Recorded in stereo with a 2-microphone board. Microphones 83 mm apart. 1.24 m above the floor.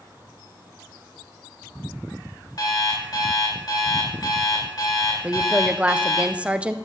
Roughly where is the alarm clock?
Left.